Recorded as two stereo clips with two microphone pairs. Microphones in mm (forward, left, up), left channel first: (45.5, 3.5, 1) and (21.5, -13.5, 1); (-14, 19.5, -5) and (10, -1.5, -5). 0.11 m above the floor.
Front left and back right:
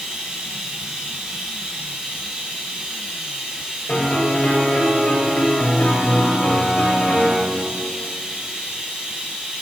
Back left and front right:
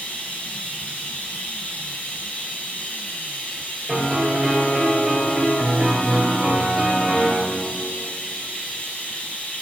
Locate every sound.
0.0 s running water: 170° left, 2 m
3.9 s a piano: 20° left, 2.5 m